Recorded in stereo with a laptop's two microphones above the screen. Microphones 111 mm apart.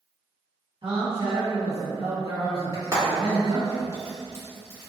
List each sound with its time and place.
0.8 s a man speaking: 50° right (ahead or behind), 1.9 m
2.7 s frying: 30° right (ahead or behind), 1.5 m